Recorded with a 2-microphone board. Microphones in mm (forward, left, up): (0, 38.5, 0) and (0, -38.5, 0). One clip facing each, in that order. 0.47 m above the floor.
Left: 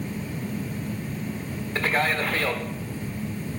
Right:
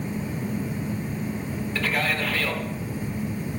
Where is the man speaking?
35° left (ahead or behind), 1.2 m.